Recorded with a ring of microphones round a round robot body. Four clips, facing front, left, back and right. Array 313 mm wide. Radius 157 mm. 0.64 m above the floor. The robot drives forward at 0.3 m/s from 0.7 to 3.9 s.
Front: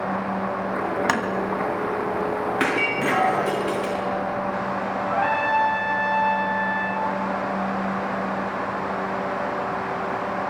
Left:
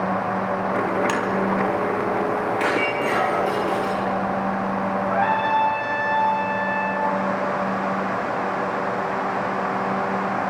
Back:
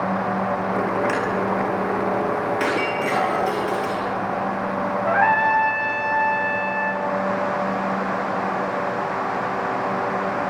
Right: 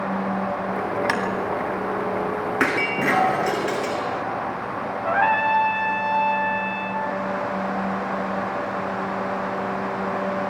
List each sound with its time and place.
1.1 s tapping: 10° right, 3 m
2.6 s breaking glass: 60° right, 7 m; by 4.1 s 65° right, 7 m
5.0 s a trumpet: 150° right, 2.5 m